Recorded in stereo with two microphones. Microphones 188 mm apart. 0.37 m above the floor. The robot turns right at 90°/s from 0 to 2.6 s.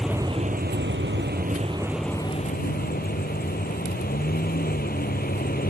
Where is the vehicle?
Straight behind; by 5.7 s 55° left.